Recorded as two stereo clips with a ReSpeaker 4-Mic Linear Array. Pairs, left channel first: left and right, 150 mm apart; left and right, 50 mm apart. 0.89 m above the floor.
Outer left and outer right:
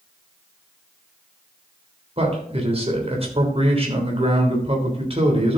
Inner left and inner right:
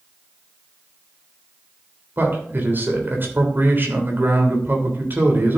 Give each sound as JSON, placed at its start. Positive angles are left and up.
{"t": 2.2, "sound": "a man speaking", "side_deg": -40, "distance_m": 3.0}